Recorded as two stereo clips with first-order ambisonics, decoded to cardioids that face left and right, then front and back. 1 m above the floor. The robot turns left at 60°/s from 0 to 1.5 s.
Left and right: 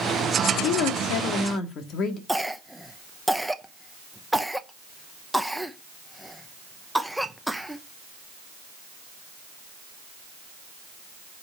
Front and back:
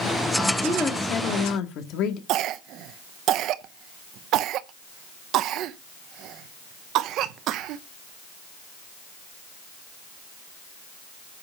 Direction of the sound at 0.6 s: 90° left.